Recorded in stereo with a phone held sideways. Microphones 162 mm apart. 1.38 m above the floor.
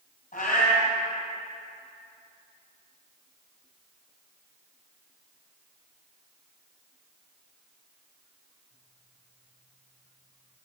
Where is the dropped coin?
No dropped coin in this recording.